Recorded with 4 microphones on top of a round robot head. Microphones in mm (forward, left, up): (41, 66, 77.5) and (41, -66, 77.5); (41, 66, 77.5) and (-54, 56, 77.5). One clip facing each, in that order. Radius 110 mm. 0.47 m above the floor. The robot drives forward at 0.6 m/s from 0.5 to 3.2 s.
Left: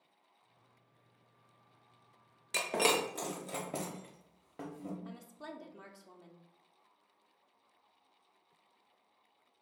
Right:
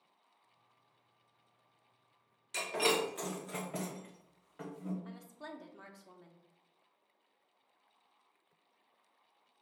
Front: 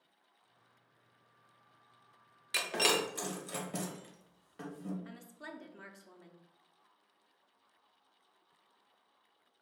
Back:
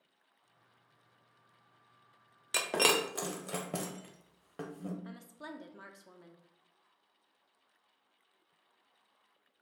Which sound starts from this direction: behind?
A woman speaking, at 5.0 s.